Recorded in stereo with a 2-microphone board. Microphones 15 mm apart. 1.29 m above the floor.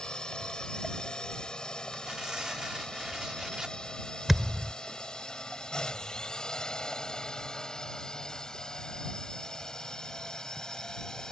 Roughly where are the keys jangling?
I don't hear keys jangling.